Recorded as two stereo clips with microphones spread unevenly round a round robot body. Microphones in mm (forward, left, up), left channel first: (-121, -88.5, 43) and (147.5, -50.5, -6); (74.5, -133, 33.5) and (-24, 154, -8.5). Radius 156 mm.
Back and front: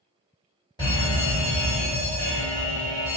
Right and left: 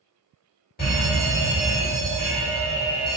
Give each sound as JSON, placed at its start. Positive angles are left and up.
{"t": 0.8, "sound": "a fire alarm", "azimuth_deg": -95, "distance_m": 1.8}